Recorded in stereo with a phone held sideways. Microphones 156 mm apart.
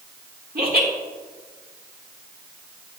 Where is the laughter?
75° right (ahead or behind), 2.5 m.